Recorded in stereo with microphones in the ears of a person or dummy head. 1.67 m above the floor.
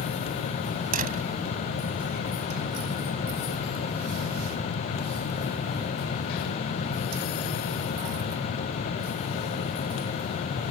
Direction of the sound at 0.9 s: 55° right (ahead or behind).